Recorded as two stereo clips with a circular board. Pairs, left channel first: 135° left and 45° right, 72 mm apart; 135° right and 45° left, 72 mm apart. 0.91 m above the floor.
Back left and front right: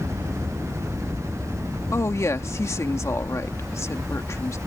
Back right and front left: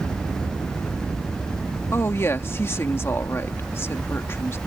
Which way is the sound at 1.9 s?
175° left.